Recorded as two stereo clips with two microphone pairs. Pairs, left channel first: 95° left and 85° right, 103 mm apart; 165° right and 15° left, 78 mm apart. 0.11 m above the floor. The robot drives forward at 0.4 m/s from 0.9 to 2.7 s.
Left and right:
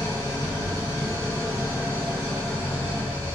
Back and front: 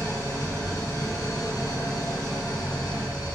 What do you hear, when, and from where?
0.0 s an engine running: 135° right, 2.5 m; by 3.4 s 150° right, 3 m